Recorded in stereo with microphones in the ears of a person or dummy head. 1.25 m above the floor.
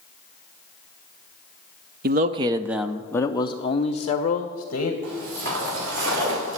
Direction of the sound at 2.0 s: 55° right (ahead or behind).